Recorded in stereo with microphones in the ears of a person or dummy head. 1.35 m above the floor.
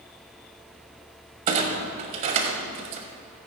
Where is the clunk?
45° right (ahead or behind), 2.0 m.